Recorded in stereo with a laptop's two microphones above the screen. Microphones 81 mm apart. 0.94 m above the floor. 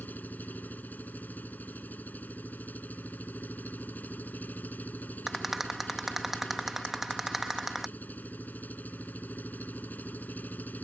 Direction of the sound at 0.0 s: 20° left (ahead or behind).